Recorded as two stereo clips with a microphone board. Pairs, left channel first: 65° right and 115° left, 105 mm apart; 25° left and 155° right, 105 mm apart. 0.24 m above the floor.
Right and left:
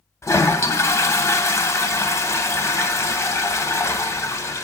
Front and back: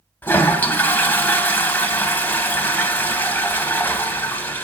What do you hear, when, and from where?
0.2 s a toilet flushing: 30° right, 0.9 m